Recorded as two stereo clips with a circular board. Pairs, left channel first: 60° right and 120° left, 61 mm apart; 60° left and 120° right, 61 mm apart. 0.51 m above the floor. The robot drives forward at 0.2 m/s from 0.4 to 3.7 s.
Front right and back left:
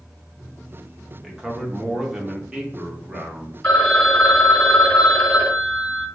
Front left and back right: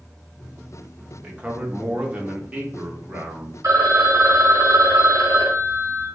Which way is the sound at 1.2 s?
160° right.